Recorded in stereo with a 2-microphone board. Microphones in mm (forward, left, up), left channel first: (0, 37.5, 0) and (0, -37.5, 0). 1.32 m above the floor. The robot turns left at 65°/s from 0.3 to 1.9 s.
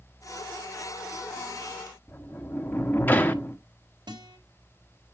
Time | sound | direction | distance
2.1 | a sliding door | 25° left (ahead or behind) | 0.9 m
4.1 | a guitar | 85° right | 2 m